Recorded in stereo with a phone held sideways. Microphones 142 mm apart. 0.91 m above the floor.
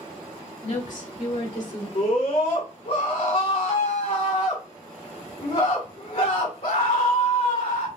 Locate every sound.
0.6 s a woman speaking: 60° left (ahead or behind), 1.4 m; by 1.9 s 55° left (ahead or behind), 2.0 m
1.9 s a scream: 75° left (ahead or behind), 2 m